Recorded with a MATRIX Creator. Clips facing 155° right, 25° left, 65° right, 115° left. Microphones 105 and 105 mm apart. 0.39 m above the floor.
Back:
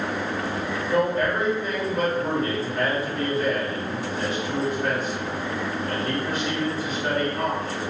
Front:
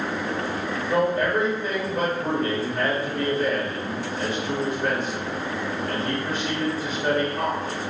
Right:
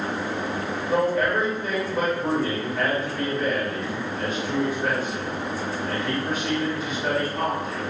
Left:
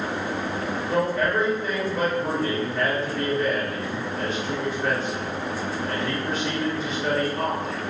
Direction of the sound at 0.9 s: 10° left.